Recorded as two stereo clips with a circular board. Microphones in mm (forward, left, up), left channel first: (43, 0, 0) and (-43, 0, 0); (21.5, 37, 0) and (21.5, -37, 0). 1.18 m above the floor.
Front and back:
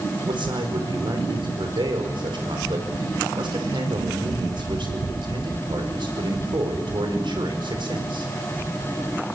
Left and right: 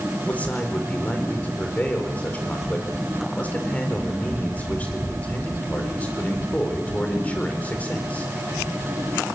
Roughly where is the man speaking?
Behind.